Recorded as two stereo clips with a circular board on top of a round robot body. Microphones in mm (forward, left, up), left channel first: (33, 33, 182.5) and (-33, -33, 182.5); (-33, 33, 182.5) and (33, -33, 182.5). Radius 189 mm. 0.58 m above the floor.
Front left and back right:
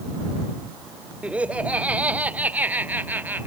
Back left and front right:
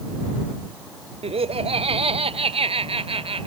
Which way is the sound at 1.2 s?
60° right.